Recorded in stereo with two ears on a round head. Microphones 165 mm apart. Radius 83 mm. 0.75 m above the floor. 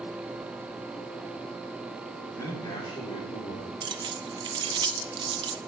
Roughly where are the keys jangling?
Right.